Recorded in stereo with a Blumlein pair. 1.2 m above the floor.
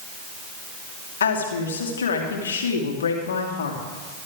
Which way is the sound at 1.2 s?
65° left.